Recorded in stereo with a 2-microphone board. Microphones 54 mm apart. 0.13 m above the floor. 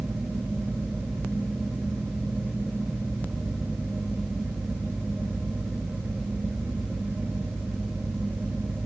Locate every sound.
Only background noise.